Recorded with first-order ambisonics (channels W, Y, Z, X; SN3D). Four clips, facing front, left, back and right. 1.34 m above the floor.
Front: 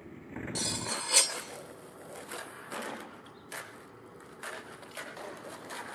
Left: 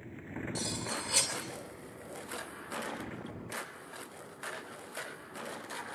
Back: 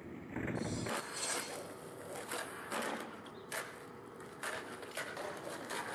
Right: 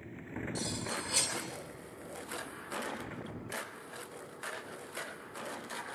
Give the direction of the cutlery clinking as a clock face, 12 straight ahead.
12 o'clock.